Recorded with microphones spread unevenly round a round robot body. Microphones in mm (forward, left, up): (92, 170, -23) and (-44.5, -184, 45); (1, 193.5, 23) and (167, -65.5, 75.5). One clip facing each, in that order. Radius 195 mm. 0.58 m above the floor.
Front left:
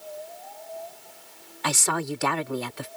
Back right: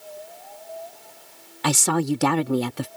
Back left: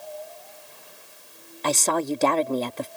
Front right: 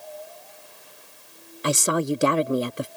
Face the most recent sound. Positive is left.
turn(degrees=-140)